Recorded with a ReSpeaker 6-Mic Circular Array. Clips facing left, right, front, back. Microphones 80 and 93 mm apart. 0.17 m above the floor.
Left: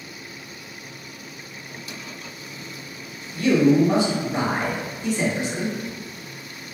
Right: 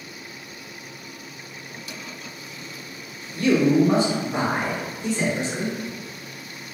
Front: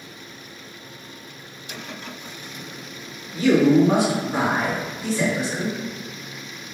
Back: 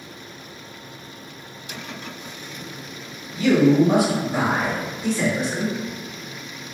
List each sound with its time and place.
3.3 s a man speaking: 40° right, 2.0 m; by 5.8 s 105° right, 1.4 m